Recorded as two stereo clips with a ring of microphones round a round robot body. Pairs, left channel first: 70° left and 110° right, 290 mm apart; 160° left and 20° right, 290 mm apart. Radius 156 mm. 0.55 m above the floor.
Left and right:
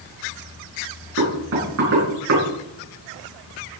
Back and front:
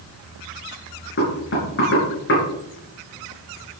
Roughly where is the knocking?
Behind right.